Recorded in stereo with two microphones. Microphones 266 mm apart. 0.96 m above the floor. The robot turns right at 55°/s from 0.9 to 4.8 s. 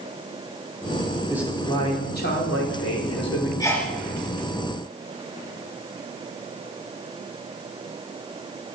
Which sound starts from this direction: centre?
A sneeze, at 3.6 s.